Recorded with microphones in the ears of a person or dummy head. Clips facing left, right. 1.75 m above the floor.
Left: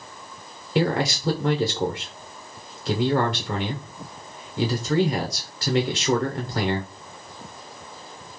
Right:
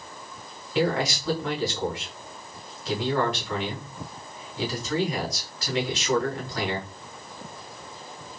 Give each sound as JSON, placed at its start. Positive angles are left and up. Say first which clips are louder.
{"t": 0.8, "sound": "a man speaking", "louder": "left 2 dB", "side_deg": 35, "distance_m": 0.9}